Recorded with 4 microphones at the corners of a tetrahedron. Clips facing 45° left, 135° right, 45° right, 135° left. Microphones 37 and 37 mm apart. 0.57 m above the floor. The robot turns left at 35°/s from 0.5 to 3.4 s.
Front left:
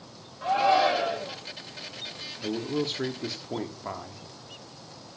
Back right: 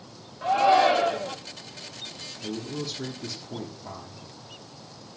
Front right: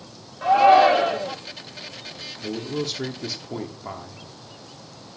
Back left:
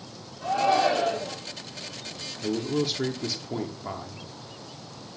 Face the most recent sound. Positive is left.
turn(degrees=35)